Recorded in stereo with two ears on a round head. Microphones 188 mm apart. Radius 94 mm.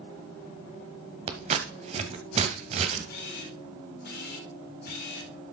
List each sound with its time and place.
1.3 s scissors: 35° right (ahead or behind), 1.5 m
3.1 s a camera shutter: 55° left (ahead or behind), 4 m